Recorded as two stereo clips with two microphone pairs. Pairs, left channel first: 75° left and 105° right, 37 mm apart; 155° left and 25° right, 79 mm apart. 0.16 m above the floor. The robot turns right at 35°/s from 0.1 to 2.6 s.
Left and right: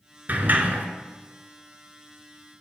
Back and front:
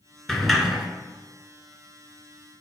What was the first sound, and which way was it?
A sliding door, 115° right.